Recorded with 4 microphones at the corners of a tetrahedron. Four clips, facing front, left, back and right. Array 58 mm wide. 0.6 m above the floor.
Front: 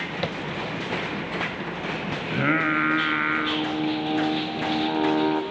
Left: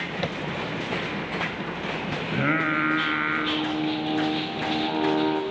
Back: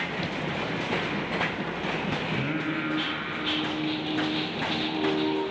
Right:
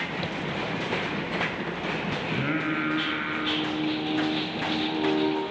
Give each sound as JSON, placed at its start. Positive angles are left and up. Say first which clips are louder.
{"t": 0.2, "sound": "tapping", "louder": "left 2 dB, front 3 dB", "azimuth_deg": 40, "distance_m": 1.0}
{"t": 2.3, "sound": "singing", "louder": "left 5 dB, front 7 dB", "azimuth_deg": 35, "distance_m": 1.5}